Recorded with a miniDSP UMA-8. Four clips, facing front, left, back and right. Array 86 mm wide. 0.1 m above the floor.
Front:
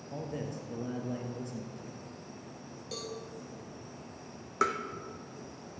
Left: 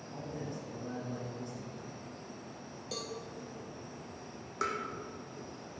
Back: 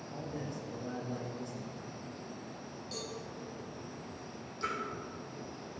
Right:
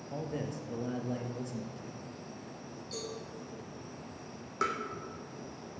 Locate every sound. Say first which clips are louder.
0.1 s a man speaking: right 4 dB, front 3 dB; 55° right, 2 m
2.9 s a cowbell: even, front 3 dB; 60° left, 3.5 m
4.6 s tapping: right 2 dB, front 8 dB; 5° right, 1.5 m